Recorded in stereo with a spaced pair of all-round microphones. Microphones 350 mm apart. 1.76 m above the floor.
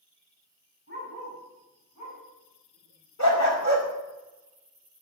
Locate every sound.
0.9 s a dog barking: 45° left (ahead or behind), 6 m; by 3.6 s 75° left (ahead or behind), 5 m
3.2 s a dog barking: 55° left (ahead or behind), 2 m